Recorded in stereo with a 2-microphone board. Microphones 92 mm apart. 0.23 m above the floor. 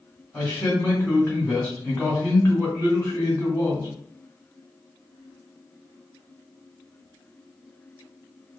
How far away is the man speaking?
About 1.4 m.